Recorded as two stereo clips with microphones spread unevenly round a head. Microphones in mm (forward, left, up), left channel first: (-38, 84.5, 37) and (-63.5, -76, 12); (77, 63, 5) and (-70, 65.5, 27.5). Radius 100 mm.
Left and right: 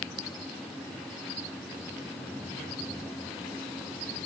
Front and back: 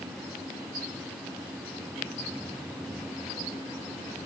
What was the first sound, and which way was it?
Only background noise.